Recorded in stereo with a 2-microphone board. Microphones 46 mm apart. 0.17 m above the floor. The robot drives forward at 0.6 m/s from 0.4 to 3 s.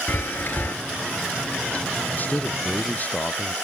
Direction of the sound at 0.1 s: 45° left (ahead or behind).